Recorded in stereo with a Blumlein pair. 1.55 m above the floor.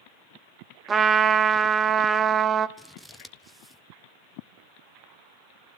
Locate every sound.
0.9 s a trumpet: 20° right, 0.9 m
2.8 s scissors: 5° right, 0.9 m